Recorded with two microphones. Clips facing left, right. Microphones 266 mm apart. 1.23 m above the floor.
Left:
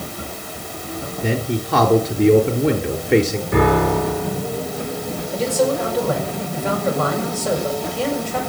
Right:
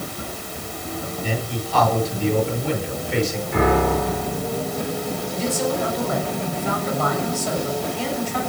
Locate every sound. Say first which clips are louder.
1.2 s a man speaking: left 9 dB; 70° left (ahead or behind), 4 m
3.5 s a piano: left 3 dB; 85° left, 7 m
5.3 s a man speaking: left 6 dB; 85° left, 7 m